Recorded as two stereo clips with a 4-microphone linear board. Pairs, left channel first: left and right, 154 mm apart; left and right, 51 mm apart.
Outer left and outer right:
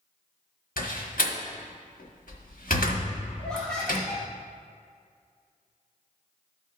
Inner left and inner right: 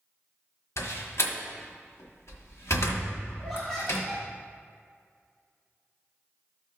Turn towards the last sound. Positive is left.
turn(degrees=5)  # may be behind; listen again after turning